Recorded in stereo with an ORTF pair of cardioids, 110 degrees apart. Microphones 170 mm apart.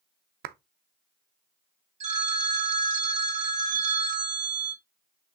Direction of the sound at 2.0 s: 45° right.